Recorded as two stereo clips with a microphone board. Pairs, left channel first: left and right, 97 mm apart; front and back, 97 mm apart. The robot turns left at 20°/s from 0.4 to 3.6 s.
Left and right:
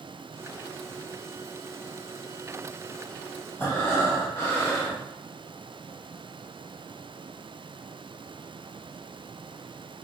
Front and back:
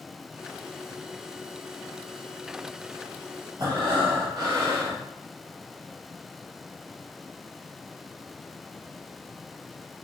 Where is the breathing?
145° left, 1.4 m.